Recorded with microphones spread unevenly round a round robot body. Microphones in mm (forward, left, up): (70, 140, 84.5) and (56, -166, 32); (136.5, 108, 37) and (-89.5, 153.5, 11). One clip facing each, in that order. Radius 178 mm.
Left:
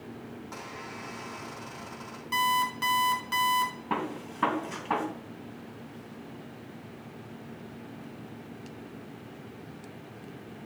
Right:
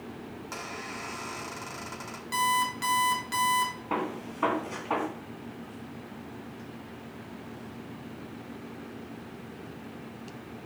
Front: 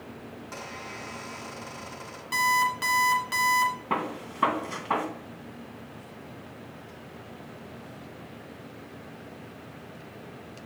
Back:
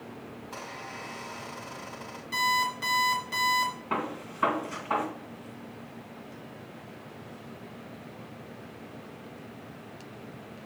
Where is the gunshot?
25° left, 3 m.